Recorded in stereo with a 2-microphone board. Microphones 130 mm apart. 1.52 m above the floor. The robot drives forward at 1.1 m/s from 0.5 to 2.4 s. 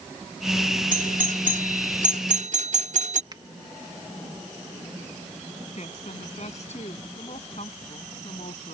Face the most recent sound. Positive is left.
turn(degrees=55)  # may be behind; listen again after turning